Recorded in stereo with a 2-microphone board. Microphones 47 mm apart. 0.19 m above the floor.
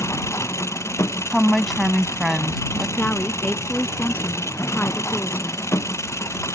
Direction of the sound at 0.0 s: 85° left.